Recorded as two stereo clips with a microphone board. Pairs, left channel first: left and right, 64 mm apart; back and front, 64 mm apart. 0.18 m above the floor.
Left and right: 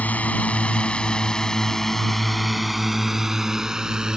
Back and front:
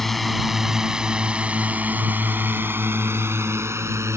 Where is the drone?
100° left; by 4.2 s 15° right.